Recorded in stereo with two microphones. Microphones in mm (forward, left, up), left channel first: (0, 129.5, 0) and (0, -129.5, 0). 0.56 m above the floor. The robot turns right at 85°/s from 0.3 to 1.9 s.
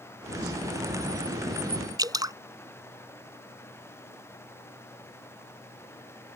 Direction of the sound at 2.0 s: 15° right (ahead or behind).